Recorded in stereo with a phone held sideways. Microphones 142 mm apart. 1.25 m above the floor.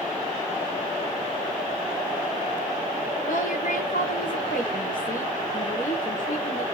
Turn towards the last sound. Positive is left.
turn(degrees=65)  # may be behind; listen again after turning